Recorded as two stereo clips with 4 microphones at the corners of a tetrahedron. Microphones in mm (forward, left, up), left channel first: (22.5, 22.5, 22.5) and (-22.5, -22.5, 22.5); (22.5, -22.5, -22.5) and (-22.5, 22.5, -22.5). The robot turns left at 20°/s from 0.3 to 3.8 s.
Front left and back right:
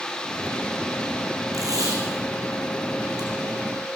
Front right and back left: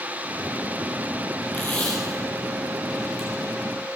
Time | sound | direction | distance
1.5 | tape being pulled | 100° right | 5.5 m